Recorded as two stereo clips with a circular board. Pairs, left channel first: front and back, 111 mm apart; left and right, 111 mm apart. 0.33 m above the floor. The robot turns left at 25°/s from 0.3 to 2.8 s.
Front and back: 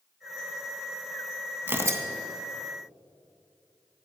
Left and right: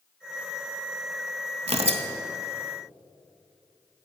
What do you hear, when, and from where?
1.7 s tearing paper: 110° right, 0.6 m; by 2.0 s 120° right, 0.6 m